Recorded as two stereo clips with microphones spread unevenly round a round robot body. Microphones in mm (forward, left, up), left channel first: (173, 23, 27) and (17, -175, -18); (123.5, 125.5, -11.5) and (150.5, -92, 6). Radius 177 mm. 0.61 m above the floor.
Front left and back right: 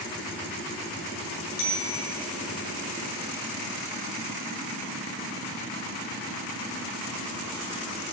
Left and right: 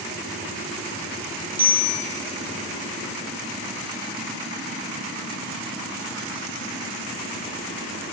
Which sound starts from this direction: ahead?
A bicycle bell, at 1.6 s.